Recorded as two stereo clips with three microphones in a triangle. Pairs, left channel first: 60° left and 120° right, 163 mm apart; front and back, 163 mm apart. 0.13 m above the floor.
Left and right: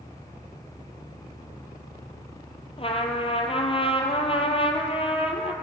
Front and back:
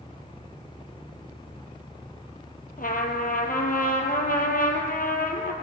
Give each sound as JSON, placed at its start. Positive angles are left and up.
{"t": 2.8, "sound": "a trumpet", "azimuth_deg": 10, "distance_m": 1.6}